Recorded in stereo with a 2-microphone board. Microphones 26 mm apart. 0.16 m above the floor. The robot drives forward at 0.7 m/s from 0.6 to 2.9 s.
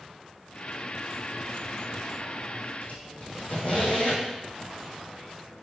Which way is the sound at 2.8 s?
55° left (ahead or behind).